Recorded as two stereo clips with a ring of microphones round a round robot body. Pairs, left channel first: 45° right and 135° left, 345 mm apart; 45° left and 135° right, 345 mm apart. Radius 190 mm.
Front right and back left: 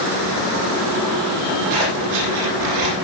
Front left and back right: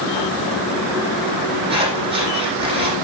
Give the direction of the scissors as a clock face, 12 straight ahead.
7 o'clock.